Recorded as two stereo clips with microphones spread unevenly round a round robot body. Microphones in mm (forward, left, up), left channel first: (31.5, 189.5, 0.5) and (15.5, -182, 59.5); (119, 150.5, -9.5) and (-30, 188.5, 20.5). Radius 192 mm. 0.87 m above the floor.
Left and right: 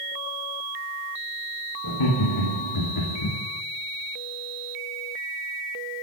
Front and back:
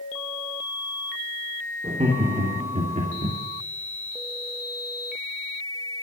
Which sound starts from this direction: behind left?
Laughter, at 1.8 s.